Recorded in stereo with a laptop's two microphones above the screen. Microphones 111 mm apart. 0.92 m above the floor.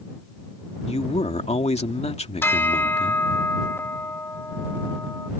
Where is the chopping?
No chopping in this recording.